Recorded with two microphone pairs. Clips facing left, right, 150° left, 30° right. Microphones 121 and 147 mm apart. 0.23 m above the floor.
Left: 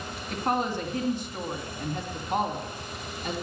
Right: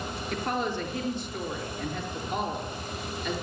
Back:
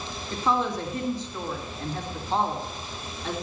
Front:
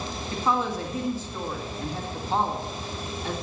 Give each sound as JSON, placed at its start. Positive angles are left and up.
{"t": 0.3, "sound": "a woman speaking", "azimuth_deg": 55, "distance_m": 2.5}